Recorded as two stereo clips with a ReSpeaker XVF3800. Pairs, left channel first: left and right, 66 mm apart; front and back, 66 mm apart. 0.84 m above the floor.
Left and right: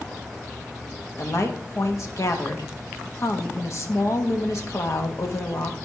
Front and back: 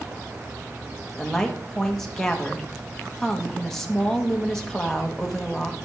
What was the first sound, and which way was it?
A woman speaking, 80° left.